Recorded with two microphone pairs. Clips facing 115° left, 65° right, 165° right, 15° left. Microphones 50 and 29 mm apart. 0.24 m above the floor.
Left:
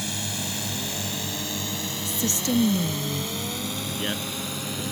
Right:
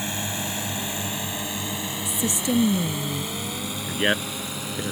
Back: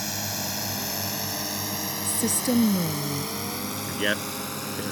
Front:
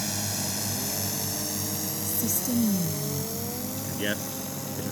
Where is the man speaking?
95° right.